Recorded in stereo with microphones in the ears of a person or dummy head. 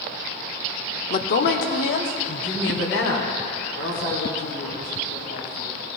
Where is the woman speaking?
50° left (ahead or behind), 0.7 m; by 5.7 s 85° left, 6.5 m.